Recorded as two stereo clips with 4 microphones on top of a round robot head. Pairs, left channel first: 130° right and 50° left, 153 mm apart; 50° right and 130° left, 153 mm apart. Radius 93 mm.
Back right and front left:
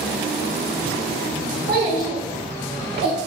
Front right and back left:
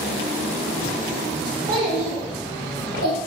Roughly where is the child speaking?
Left.